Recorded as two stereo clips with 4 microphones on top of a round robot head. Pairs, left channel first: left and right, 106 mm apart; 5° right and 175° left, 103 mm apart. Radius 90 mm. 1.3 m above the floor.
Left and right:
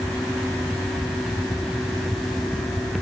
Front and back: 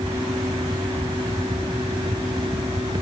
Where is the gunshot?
I don't hear a gunshot.